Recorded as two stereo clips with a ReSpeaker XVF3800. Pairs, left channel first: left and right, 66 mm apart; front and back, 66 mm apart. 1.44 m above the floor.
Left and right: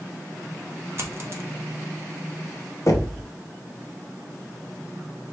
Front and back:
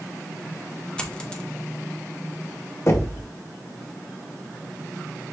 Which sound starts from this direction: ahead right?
A dropped coin, at 1.0 s.